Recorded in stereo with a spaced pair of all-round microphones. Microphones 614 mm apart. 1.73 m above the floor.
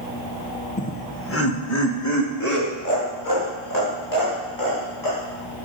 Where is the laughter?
10° left (ahead or behind), 1.4 m; by 5.2 s 30° left (ahead or behind), 8 m.